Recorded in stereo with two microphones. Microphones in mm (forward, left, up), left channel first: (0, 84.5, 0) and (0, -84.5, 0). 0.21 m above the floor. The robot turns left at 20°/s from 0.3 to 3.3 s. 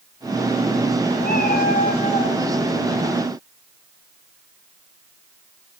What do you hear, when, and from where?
1.2 s a cat meowing: 75° left (ahead or behind), 6 m; by 2.4 s 50° left (ahead or behind), 6 m